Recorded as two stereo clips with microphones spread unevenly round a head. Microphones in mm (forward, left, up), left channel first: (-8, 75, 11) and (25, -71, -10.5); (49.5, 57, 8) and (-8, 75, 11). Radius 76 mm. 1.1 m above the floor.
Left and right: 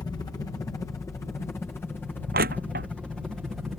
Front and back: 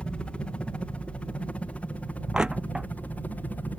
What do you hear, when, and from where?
0.0 s a helicopter: 40° left; by 3.8 s straight ahead
2.3 s crushing: 110° right